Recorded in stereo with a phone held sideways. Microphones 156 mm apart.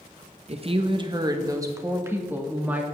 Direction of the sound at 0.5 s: 40° right (ahead or behind).